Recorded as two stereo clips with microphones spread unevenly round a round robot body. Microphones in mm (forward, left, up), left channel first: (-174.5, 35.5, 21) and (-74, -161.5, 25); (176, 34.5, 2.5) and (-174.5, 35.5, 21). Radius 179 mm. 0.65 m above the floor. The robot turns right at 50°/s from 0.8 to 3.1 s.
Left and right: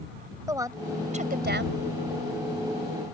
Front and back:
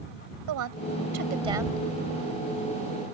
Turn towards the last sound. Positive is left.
turn(degrees=-25)